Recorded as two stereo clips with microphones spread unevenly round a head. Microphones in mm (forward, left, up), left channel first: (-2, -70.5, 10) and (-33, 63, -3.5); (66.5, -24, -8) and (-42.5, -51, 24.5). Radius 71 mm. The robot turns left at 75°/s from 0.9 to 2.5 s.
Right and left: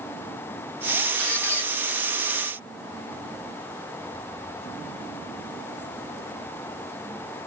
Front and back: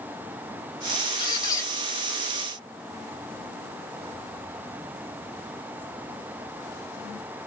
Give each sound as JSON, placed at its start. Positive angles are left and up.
{"t": 1.2, "sound": "a squeak", "azimuth_deg": -20, "distance_m": 0.8}